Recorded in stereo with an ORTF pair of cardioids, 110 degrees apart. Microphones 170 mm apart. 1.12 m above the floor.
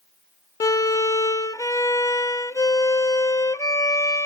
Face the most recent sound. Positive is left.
turn(degrees=20)